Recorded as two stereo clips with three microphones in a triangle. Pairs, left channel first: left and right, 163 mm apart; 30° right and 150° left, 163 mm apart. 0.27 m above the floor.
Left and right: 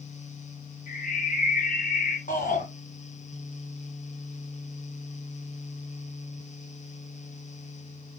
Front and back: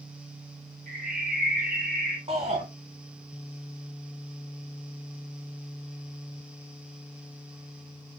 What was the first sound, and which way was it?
A bird, 120° left.